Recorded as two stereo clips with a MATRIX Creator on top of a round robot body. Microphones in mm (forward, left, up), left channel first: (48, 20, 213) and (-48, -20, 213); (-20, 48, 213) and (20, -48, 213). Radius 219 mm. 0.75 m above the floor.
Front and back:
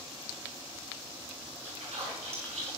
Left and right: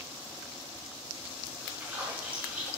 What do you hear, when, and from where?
1.6 s a splash: 145° right, 6.5 m